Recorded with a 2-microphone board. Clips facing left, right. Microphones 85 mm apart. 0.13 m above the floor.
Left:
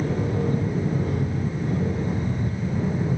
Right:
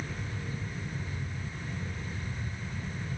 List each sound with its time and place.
0.0 s an aircraft: 60° left (ahead or behind)